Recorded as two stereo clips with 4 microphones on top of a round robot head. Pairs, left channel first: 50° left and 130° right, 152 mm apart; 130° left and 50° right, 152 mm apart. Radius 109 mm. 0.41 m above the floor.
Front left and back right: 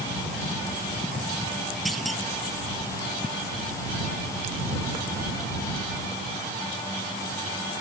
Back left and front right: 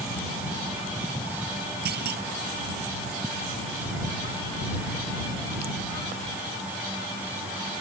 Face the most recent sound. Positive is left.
turn(degrees=-40)